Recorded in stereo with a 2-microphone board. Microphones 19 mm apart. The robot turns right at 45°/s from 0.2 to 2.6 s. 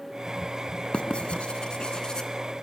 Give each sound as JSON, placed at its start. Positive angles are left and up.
{"t": 0.9, "sound": "writing", "side_deg": 65, "distance_m": 2.5}